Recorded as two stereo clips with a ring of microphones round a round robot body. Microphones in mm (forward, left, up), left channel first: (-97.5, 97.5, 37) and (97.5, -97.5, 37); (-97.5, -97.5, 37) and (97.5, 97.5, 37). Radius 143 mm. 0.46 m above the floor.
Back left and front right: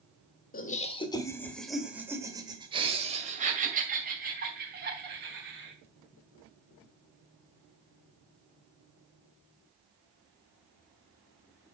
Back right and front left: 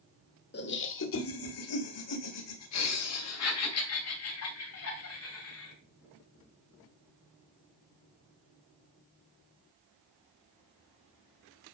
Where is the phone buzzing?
I don't hear a phone buzzing.